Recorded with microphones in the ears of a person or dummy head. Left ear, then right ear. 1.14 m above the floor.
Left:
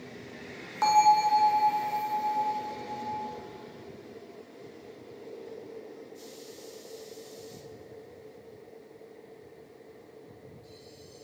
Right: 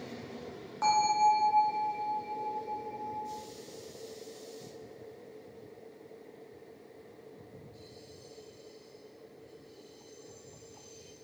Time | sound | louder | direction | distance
0.8 | a bell | left 4 dB | 25° left (ahead or behind) | 0.5 m